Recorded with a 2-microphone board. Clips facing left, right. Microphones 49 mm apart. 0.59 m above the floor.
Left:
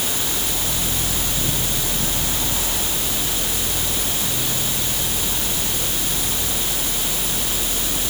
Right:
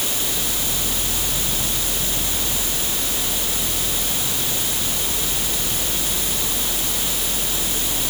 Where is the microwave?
No microwave in this recording.